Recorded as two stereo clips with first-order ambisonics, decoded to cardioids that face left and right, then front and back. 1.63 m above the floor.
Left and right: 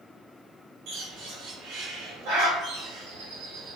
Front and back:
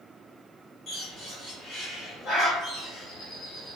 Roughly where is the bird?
Ahead right.